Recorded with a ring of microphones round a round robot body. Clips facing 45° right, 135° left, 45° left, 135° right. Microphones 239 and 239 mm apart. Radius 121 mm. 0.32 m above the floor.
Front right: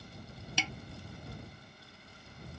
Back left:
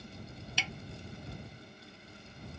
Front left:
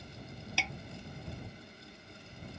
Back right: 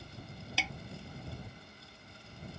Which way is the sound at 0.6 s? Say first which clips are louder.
Front right 5 dB, back right 1 dB; 45° right.